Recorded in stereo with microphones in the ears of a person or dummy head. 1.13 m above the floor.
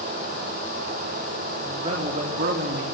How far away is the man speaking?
About 2.5 m.